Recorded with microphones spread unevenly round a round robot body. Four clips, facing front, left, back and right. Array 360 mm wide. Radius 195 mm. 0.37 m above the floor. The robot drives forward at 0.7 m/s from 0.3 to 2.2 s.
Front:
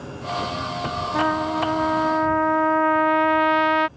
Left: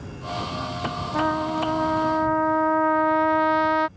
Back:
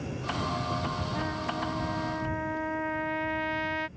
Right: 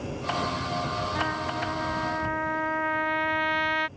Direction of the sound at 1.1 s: 15° left.